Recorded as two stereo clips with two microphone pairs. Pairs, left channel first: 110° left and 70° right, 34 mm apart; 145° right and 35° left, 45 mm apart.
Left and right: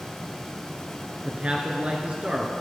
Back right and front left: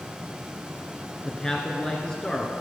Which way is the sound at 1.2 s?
80° right.